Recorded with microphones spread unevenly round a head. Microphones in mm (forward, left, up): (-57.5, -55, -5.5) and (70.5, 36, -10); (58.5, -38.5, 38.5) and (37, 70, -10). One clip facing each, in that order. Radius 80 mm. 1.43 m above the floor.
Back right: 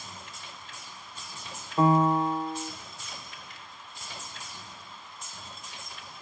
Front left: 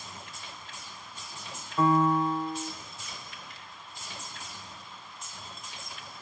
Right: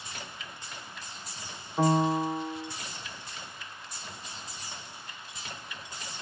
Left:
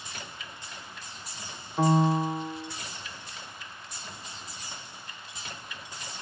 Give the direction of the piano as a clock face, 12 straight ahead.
4 o'clock.